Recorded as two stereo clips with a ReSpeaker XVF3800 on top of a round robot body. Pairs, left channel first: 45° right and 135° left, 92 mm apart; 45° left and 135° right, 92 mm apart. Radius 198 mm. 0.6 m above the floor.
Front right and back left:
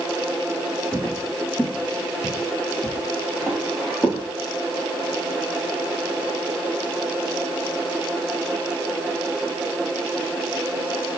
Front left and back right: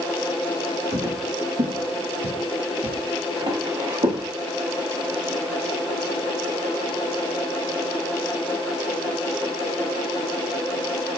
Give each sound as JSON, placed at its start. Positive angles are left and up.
{"t": 0.9, "sound": "footsteps", "azimuth_deg": -125, "distance_m": 3.0}